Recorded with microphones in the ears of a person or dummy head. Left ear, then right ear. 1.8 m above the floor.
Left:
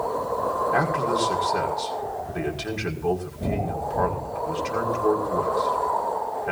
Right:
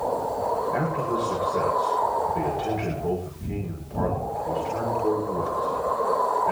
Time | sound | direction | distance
0.7 | a man speaking | 80° left | 5.5 m